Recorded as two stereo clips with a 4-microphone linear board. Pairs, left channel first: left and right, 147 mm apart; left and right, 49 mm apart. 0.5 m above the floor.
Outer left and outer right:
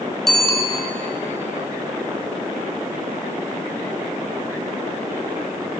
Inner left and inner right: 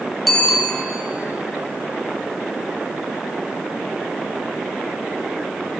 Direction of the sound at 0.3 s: Centre (ahead or behind).